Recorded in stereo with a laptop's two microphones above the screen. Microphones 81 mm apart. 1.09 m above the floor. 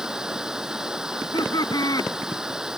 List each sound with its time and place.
0.0 s running water: 5° right (ahead or behind)
1.1 s laughter: 55° left (ahead or behind)